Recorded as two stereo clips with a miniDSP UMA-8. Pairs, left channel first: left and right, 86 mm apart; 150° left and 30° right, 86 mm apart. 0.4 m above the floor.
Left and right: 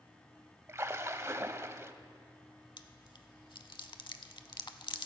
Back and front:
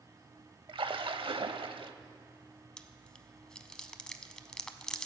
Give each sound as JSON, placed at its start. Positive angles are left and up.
{"t": 0.7, "sound": "a splash", "azimuth_deg": -35, "distance_m": 0.5}
{"t": 2.8, "sound": "chewing", "azimuth_deg": 70, "distance_m": 0.5}